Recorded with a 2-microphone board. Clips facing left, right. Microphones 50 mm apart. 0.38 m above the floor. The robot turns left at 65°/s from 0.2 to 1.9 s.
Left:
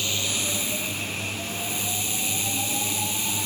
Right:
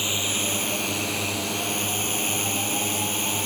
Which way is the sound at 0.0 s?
20° right.